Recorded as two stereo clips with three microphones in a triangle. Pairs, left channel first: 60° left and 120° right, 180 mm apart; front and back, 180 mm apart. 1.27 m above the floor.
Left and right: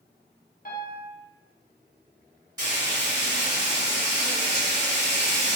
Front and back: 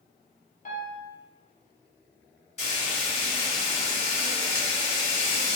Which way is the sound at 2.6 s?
50° right.